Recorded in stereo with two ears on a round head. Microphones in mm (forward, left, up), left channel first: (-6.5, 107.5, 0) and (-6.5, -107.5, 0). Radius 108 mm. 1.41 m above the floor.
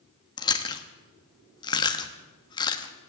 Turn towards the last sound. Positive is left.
turn(degrees=20)  # may be behind; listen again after turning